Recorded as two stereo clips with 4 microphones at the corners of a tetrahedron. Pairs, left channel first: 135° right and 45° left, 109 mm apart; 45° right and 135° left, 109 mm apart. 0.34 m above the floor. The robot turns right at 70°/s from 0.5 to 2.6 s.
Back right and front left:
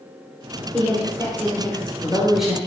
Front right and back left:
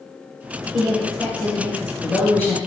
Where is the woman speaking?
155° right, 0.9 m; by 2.6 s 25° right, 0.9 m.